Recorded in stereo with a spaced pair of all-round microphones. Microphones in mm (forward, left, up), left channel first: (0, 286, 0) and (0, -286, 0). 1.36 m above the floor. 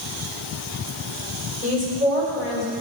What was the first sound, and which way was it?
A woman speaking, 75° left (ahead or behind).